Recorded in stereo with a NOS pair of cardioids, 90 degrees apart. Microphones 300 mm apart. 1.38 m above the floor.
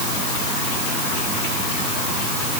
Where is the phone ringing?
No phone ringing in this recording.